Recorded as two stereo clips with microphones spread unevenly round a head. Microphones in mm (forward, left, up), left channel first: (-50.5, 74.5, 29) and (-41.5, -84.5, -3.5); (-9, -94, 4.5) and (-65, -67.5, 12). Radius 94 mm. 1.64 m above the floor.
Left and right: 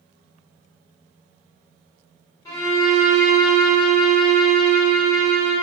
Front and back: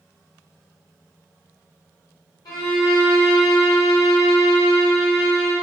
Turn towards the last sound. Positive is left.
turn(degrees=30)